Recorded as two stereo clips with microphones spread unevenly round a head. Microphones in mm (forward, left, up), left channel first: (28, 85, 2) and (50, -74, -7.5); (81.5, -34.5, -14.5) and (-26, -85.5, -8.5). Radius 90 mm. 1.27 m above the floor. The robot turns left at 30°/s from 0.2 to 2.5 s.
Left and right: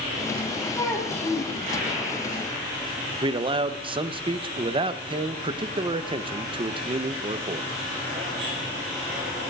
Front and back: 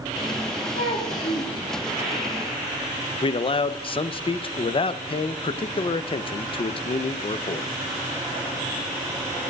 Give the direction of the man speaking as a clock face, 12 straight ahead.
1 o'clock.